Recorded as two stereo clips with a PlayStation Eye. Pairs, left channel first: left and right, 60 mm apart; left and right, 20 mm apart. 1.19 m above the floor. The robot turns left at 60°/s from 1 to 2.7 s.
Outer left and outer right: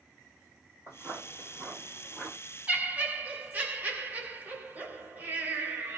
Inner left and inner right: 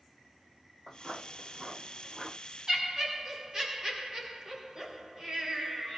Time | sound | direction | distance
0.9 | footsteps | 40° left (ahead or behind) | 1.5 m
2.7 | laughter | 25° right (ahead or behind) | 1.7 m